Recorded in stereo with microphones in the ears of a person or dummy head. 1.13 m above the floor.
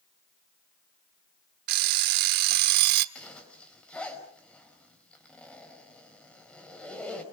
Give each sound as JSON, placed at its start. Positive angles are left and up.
{"t": 1.7, "sound": "an alarm clock", "side_deg": -55, "distance_m": 1.2}
{"t": 3.1, "sound": "a zipper", "side_deg": 5, "distance_m": 5.0}